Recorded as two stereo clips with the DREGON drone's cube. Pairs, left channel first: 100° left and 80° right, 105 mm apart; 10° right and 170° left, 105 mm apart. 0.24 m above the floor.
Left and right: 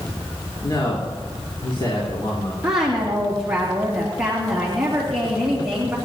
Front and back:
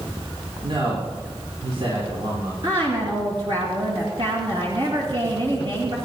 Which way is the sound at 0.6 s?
140° left.